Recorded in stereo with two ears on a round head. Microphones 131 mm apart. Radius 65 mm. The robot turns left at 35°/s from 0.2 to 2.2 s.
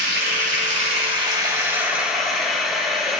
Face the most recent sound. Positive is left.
turn(degrees=180)